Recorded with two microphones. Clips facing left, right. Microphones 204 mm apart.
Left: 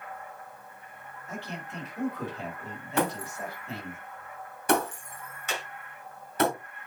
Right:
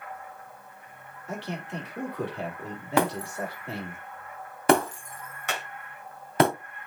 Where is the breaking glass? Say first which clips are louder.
Right 3 dB; 75° right (ahead or behind), 2.5 m.